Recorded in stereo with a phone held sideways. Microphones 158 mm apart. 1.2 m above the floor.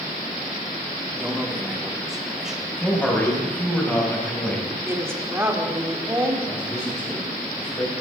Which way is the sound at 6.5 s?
25° left (ahead or behind).